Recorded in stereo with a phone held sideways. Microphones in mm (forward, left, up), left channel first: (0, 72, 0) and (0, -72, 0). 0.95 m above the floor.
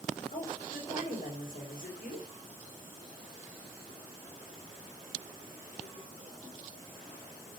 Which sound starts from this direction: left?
A woman speaking, at 0.3 s.